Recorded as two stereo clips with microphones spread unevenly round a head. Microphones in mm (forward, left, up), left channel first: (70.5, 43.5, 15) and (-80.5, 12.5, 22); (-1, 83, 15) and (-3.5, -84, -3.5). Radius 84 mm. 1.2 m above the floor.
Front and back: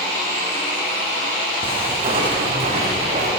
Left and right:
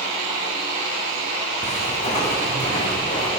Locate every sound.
1.6 s footsteps: 135° left, 5 m; by 3.3 s 150° left, 5 m